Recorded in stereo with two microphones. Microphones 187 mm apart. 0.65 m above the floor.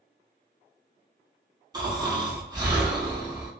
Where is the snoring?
20° right (ahead or behind), 1.4 m.